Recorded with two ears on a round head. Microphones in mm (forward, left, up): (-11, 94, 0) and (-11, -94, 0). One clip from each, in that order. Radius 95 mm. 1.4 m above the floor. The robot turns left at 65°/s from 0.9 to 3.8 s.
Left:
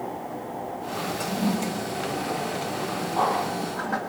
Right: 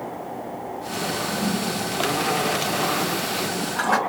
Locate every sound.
1.2 s a toilet flushing: 60° left (ahead or behind), 2 m; by 4.0 s 70° right (ahead or behind), 2 m